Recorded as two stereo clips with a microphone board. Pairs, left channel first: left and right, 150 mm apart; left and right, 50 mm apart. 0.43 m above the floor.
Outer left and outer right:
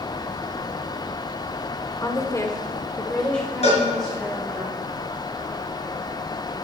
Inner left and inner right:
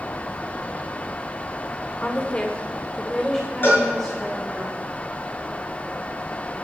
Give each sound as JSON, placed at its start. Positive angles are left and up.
{"t": 2.0, "sound": "a woman speaking", "side_deg": 20, "distance_m": 1.2}
{"t": 3.6, "sound": "a cowbell", "side_deg": 45, "distance_m": 4.0}